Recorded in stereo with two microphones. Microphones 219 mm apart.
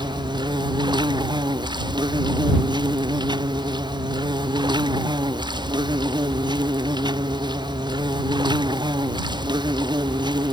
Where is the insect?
20° right (ahead or behind).